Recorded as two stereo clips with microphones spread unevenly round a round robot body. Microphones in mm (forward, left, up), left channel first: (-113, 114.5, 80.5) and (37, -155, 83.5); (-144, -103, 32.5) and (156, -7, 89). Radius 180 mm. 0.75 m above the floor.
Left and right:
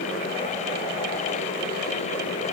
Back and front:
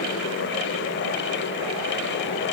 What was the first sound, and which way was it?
Only background noise.